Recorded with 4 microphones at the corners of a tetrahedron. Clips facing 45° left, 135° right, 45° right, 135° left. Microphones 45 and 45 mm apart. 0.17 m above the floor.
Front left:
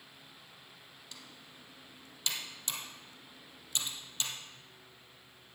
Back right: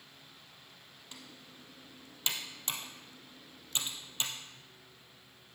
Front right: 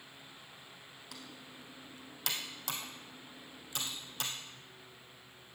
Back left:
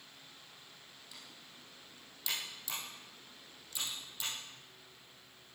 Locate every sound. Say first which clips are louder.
1.1 s typing on a keyboard: back right 2 dB, front right 6 dB; 75° right, 2.5 m